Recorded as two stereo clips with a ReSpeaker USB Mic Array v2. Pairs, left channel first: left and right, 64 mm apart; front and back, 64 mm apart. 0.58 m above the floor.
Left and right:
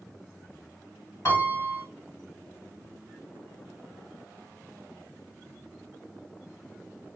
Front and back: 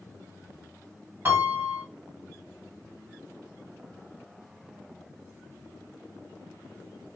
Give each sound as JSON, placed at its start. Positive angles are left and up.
{"t": 1.2, "sound": "a piano", "azimuth_deg": 130, "distance_m": 2.5}